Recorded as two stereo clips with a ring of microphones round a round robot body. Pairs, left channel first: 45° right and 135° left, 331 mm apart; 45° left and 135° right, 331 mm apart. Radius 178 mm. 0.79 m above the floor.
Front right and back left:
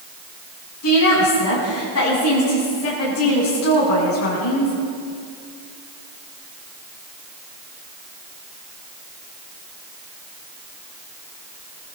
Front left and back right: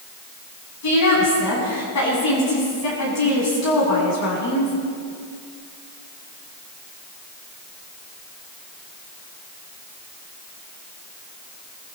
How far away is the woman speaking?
About 7.5 m.